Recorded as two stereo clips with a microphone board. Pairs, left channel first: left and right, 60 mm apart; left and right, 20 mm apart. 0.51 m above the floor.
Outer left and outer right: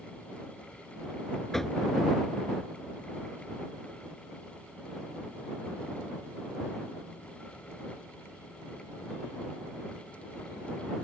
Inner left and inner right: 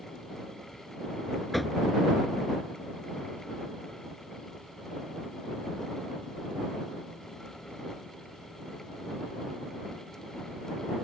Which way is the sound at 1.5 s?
5° left (ahead or behind).